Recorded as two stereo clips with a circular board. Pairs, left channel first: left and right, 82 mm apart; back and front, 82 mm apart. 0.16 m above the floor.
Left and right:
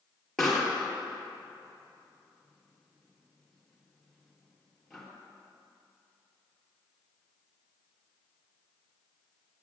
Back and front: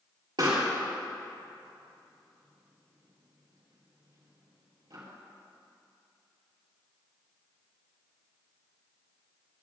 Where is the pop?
5° left, 3 m.